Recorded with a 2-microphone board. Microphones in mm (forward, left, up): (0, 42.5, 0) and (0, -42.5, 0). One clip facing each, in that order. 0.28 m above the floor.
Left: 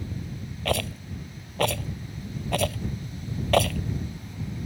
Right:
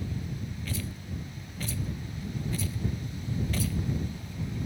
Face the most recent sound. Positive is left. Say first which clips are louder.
# left 14 dB
turn(degrees=65)  # may be behind; listen again after turning